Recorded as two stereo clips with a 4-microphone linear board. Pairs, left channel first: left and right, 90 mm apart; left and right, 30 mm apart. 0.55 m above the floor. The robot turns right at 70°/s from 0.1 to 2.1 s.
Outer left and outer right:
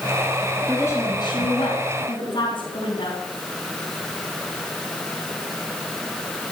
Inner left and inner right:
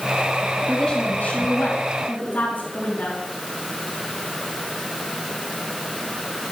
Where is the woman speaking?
5° left, 4.5 m; by 3.2 s 105° left, 4.5 m.